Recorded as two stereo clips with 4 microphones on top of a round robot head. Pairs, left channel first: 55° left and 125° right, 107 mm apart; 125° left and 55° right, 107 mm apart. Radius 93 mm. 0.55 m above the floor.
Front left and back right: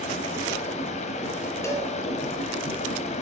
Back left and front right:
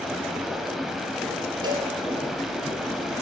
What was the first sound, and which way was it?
Running water, 35° left.